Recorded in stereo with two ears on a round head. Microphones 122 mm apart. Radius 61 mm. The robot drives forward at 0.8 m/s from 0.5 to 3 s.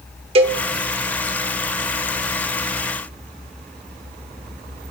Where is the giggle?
No giggle in this recording.